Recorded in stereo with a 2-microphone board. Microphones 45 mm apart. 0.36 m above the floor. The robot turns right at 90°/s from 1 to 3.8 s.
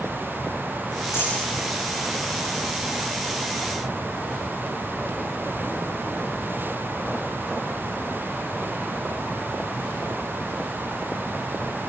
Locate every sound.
1.1 s a dropped coin: 75° left (ahead or behind), 8 m; by 1.4 s 85° left, 8 m